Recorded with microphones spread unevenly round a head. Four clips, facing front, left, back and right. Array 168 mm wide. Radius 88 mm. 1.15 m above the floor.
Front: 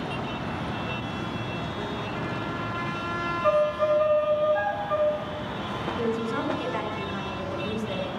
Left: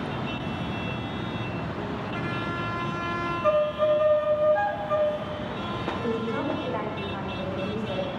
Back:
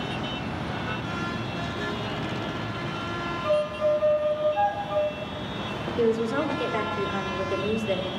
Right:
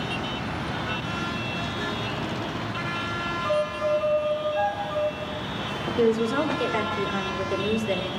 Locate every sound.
3.4 s a violin: 20° left, 1.4 m
6.0 s a woman speaking: 105° right, 4 m